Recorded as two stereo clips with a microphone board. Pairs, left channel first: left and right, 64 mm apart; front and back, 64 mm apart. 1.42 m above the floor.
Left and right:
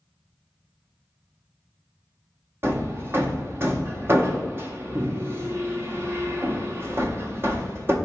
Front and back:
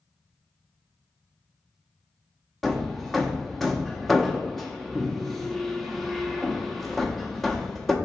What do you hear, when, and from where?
2.6 s hammering: 85° right, 0.6 m